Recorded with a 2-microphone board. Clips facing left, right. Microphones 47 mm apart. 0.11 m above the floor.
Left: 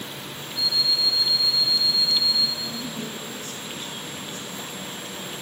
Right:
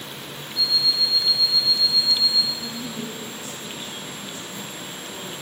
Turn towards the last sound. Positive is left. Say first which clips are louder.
# even
turn(degrees=-10)  # may be behind; listen again after turning